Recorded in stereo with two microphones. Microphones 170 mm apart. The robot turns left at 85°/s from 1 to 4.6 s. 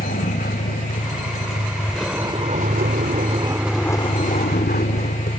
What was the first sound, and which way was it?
A vehicle, 75° left (ahead or behind).